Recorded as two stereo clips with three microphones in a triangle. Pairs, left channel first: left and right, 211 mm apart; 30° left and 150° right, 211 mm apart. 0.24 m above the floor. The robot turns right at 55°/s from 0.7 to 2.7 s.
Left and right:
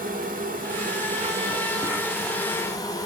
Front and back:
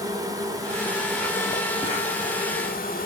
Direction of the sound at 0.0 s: 85° right.